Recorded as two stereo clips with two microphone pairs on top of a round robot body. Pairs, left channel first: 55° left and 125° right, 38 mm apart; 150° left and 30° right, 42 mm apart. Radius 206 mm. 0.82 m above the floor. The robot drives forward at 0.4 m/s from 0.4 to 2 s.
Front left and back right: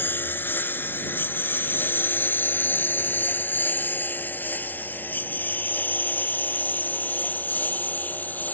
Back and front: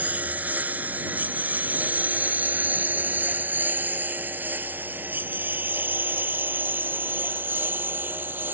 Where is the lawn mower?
25° left; by 8.6 s 10° left.